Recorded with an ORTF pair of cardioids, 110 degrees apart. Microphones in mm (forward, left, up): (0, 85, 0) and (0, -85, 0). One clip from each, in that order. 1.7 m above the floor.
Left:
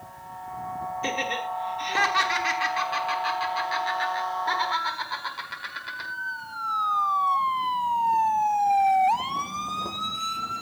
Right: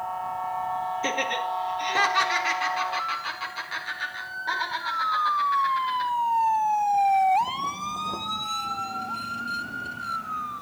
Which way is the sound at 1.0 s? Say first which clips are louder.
Left 1 dB; straight ahead.